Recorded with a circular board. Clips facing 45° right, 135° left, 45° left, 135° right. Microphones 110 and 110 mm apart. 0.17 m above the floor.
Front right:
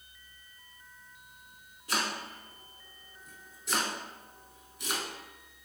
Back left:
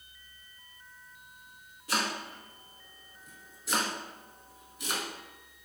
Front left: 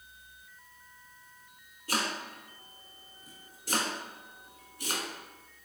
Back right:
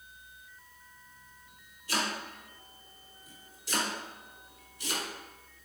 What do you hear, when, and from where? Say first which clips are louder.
1.9 s chopping: back left 1 dB, even; 45° left, 0.9 m